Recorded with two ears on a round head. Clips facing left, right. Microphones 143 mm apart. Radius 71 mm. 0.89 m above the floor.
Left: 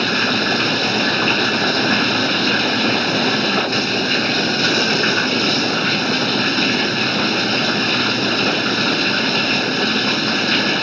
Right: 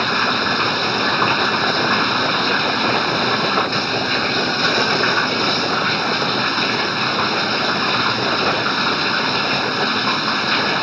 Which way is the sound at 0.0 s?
35° left (ahead or behind).